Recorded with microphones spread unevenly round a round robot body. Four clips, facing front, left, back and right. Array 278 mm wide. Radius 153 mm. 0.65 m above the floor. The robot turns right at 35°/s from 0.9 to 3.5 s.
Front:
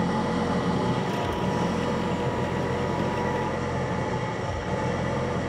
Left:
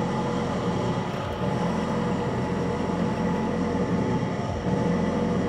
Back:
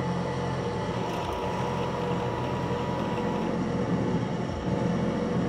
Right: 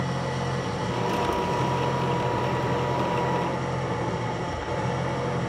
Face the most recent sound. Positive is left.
turn(degrees=120)